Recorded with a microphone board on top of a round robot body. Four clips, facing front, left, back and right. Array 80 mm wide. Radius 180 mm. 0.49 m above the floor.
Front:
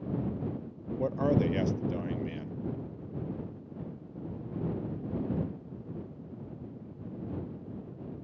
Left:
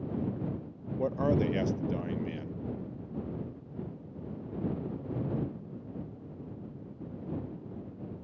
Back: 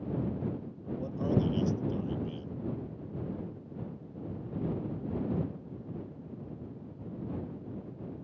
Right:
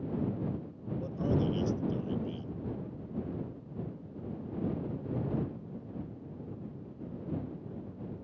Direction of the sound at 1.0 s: 45° left.